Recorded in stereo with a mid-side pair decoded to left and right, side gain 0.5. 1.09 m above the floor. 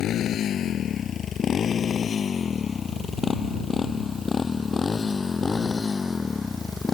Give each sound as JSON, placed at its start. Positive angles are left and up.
{"t": 0.0, "sound": "a motorcycle", "azimuth_deg": 65}